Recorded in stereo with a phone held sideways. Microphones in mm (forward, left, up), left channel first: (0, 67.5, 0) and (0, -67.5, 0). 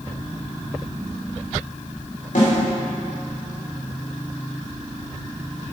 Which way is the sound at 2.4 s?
80° left.